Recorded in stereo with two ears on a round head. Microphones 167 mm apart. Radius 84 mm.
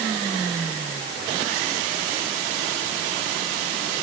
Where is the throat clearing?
I don't hear throat clearing.